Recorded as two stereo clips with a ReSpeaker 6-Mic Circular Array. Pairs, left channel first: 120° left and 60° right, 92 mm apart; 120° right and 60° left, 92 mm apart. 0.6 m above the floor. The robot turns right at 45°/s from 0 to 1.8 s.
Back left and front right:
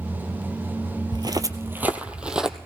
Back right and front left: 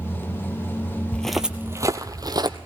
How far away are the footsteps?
About 0.9 m.